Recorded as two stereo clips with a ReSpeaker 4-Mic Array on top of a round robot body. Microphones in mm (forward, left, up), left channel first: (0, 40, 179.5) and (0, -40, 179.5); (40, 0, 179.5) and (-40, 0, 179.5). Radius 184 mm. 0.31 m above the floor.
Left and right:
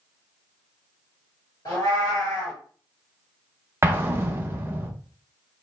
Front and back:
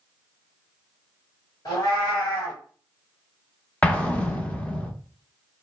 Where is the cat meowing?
45° left, 1.4 m.